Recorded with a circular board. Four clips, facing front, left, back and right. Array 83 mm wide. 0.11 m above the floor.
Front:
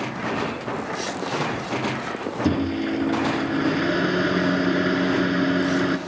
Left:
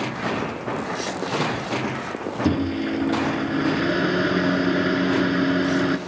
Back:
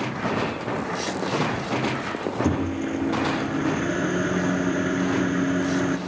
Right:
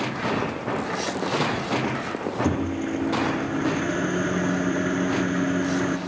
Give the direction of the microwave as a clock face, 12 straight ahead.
10 o'clock.